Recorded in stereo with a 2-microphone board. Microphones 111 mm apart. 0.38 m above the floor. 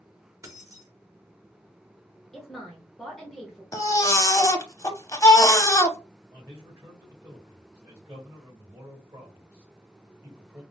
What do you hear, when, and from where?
0.4 s keys jangling: 30° right (ahead or behind), 0.8 m
2.3 s a woman speaking: centre (ahead or behind), 0.8 m
3.7 s a baby crying: 30° left (ahead or behind), 0.5 m
6.3 s a man speaking: 25° right (ahead or behind), 1.7 m